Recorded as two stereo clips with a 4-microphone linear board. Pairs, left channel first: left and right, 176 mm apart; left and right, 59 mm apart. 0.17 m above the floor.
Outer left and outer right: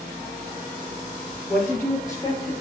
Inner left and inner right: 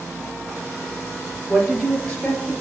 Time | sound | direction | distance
1.5 | a woman speaking | 5° left (ahead or behind) | 3 m